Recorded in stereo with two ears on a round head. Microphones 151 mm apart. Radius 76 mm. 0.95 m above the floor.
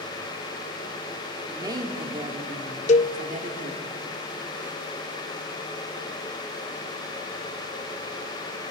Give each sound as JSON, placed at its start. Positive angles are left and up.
{"t": 1.5, "sound": "a woman speaking", "side_deg": -20, "distance_m": 2.5}
{"t": 2.9, "sound": "a cowbell", "side_deg": 40, "distance_m": 0.7}